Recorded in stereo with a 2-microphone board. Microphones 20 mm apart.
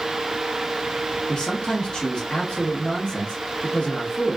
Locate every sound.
1.3 s a man speaking: 45° left (ahead or behind), 0.8 m